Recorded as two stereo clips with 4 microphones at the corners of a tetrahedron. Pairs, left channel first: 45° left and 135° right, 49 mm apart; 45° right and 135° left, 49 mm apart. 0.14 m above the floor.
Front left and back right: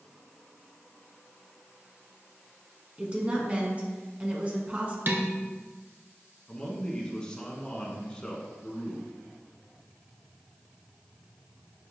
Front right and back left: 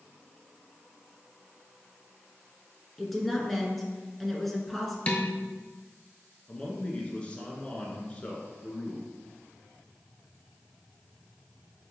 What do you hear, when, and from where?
3.0 s a woman speaking: 130° right, 1.5 m
5.1 s dishes clattering: 100° right, 1.2 m
6.5 s a man speaking: 10° right, 1.4 m